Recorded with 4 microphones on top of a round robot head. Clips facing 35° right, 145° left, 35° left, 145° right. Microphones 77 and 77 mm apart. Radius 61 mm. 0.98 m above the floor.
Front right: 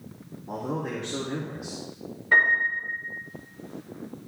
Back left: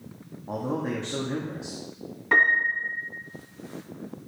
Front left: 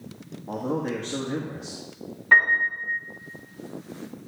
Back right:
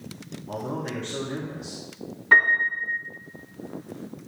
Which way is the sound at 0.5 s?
85° left.